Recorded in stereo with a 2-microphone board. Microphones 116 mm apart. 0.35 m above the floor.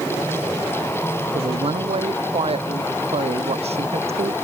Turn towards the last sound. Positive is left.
turn(degrees=-65)  # may be behind; listen again after turning